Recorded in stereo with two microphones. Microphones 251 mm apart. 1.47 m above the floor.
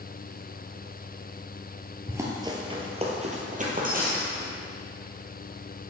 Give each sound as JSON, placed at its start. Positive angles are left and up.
{"t": 2.1, "sound": "running footsteps", "side_deg": -10, "distance_m": 1.7}